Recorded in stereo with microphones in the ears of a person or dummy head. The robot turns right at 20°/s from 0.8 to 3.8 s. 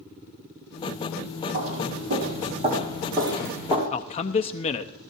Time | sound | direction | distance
1.5 | footsteps | 55° right (ahead or behind) | 3 m
3.9 | a man speaking | 35° left (ahead or behind) | 0.7 m